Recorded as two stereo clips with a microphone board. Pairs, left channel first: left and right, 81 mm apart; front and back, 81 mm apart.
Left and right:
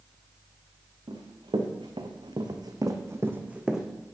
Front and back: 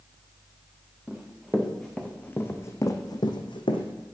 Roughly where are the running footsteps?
Right.